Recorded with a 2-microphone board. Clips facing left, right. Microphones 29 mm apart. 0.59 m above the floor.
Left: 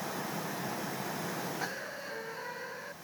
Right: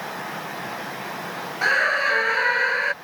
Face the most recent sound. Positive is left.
turn(degrees=-80)